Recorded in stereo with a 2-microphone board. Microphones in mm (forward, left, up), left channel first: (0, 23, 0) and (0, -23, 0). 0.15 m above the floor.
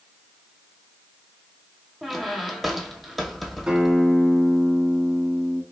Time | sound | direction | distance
2.0 | a squeak | 5° left (ahead or behind) | 0.6 m
3.7 | a guitar | 20° right (ahead or behind) | 0.9 m